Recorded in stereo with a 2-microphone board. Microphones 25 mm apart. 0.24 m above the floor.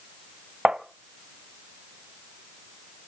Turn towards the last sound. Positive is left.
turn(degrees=-40)  # may be behind; listen again after turning